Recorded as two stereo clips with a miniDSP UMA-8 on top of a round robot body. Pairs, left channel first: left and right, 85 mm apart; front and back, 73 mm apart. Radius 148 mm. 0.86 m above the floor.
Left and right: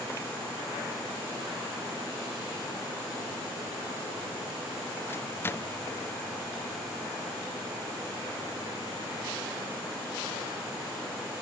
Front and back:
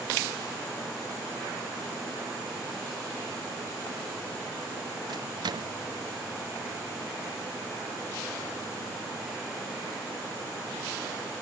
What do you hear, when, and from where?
5.1 s a microwave: 155° left